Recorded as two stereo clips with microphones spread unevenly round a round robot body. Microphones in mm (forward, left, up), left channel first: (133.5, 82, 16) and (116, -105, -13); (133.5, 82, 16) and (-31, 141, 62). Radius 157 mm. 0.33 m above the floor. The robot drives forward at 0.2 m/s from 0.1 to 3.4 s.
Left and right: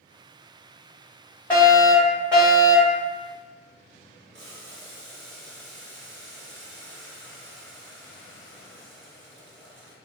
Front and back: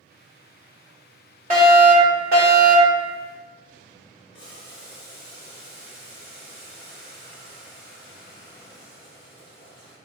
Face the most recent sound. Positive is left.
turn(degrees=-105)